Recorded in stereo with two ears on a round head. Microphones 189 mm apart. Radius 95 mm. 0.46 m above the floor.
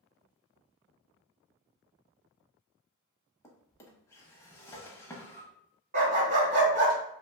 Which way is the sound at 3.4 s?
15° left (ahead or behind).